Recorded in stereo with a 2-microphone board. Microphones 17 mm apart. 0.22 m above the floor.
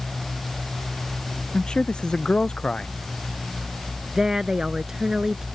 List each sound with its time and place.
1.5 s a man speaking: 80° left
4.2 s a woman speaking: 35° right (ahead or behind)